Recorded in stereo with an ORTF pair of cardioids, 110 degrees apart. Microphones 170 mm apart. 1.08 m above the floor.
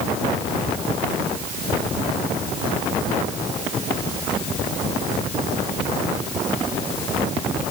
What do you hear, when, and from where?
Only background noise.